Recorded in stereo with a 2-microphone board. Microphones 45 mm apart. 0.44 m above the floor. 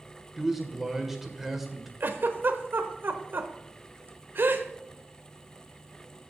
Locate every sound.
0.4 s a man speaking: 5° right (ahead or behind), 1.8 m
2.0 s a giggle: 55° right (ahead or behind), 1.1 m